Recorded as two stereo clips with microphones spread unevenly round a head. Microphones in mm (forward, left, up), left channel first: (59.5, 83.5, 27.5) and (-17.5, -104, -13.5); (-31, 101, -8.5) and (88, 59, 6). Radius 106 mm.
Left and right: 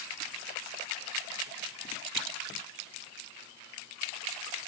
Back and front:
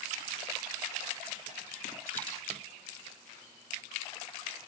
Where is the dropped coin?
115° right, 1.6 m.